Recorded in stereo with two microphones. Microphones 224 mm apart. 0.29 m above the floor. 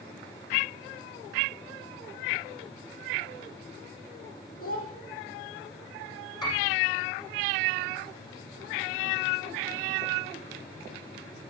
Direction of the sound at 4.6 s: 75° left (ahead or behind).